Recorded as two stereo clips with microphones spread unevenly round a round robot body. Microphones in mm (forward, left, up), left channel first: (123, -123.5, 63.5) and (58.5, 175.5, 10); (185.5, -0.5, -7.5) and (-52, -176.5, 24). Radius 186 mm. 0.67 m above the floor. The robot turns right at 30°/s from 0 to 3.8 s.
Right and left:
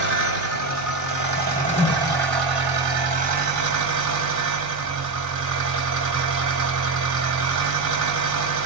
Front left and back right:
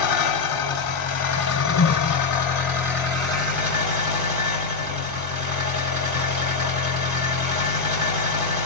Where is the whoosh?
10° right, 0.7 m; by 2.2 s 15° left, 0.7 m.